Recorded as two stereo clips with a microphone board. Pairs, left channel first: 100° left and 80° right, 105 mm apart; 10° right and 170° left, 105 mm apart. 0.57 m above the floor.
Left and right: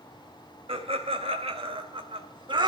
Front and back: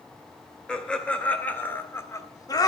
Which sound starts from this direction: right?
Laughter, at 0.7 s.